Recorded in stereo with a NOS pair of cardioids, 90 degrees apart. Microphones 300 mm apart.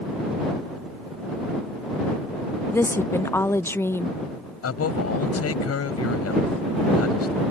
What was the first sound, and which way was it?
A woman speaking, 10° left.